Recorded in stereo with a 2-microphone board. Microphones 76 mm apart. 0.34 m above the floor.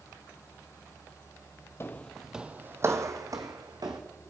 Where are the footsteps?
30° left (ahead or behind), 0.7 m; by 4.0 s 60° right (ahead or behind), 1.8 m.